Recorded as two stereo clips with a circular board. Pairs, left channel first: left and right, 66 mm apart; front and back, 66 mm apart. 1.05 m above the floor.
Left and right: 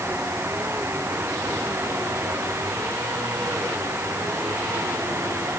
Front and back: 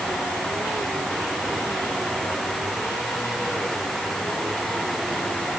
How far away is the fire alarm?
No fire alarm in this recording.